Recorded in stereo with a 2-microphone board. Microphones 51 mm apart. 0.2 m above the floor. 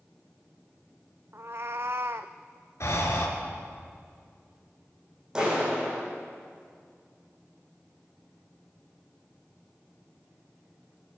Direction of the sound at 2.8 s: 65° left (ahead or behind).